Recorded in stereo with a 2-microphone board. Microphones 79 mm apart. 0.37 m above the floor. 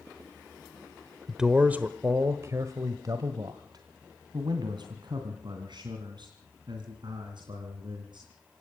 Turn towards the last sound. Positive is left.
turn(degrees=-75)  # may be behind; listen again after turning